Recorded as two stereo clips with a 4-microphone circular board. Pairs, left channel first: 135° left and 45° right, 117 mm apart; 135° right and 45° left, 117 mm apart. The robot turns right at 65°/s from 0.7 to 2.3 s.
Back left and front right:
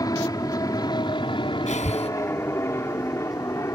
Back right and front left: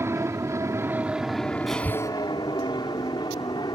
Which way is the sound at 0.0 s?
100° left.